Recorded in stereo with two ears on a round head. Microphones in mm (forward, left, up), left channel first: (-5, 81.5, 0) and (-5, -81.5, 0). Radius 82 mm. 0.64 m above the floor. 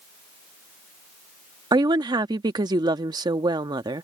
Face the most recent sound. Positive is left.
turn(degrees=-20)  # may be behind; listen again after turning